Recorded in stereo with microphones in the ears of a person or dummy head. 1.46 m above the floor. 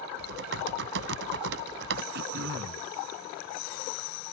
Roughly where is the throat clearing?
Right.